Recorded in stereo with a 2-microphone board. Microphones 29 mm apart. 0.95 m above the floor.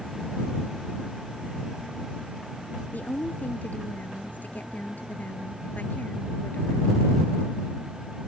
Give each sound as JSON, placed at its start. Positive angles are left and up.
{"t": 2.9, "sound": "a woman speaking", "side_deg": 75}